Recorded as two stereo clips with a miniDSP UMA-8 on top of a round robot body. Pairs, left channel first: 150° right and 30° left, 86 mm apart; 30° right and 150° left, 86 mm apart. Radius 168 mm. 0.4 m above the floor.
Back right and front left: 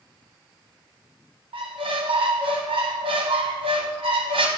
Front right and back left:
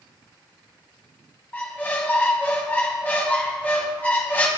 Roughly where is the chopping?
I don't hear chopping.